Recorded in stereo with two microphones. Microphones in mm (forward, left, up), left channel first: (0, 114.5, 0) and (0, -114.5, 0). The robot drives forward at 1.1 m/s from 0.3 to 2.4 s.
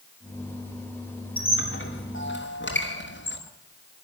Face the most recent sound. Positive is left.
turn(degrees=55)  # may be behind; listen again after turning